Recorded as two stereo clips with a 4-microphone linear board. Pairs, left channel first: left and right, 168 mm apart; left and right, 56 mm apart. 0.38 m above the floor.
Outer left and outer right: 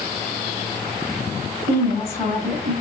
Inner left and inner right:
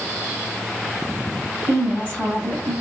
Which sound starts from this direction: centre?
A woman speaking, at 1.7 s.